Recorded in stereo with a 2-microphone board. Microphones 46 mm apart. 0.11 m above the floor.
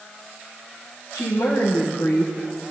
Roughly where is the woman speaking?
Left.